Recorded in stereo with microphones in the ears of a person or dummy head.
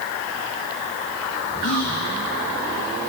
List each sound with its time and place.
1.6 s whispering: 70° left (ahead or behind), 1.8 m